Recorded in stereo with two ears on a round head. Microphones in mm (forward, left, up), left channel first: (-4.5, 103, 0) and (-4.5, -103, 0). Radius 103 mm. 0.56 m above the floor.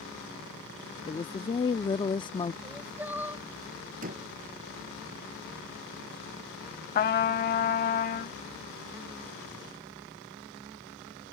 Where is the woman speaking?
20° left (ahead or behind).